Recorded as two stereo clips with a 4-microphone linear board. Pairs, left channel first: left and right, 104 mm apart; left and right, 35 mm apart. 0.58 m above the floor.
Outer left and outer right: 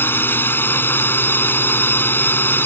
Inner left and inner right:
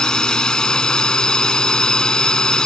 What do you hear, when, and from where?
0.0 s a drone: 20° left (ahead or behind)